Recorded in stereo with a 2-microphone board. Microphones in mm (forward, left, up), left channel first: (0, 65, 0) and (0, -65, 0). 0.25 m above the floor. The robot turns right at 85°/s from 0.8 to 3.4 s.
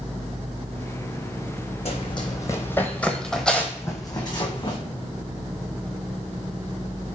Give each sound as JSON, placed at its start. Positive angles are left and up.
{"t": 1.9, "sound": "running footsteps", "side_deg": 55, "distance_m": 0.8}